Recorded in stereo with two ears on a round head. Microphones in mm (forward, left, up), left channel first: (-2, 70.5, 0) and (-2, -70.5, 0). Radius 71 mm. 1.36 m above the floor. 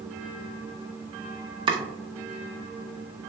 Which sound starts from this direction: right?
Chopping, at 1.7 s.